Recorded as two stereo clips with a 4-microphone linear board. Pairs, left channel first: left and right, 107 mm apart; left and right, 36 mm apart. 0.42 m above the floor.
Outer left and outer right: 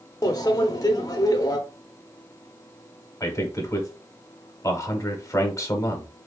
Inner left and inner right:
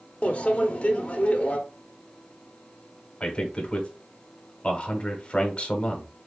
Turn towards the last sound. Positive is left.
turn(degrees=30)  # may be behind; listen again after turning